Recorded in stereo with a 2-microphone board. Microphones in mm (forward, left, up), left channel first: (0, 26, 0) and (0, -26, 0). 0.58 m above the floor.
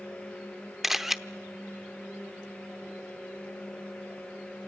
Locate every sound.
0.8 s a camera shutter: 5° right (ahead or behind), 0.8 m